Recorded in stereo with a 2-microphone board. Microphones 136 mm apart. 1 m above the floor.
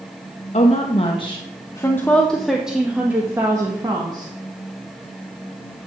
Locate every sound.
0.5 s a woman speaking: 55° left (ahead or behind), 1.4 m; by 4.3 s 30° right (ahead or behind), 1.9 m